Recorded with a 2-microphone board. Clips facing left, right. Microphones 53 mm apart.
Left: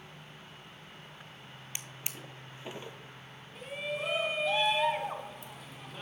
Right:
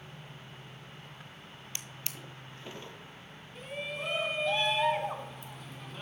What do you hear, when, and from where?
1.8 s a drawer: 20° left (ahead or behind), 0.8 m
3.5 s a shout: centre (ahead or behind), 1.0 m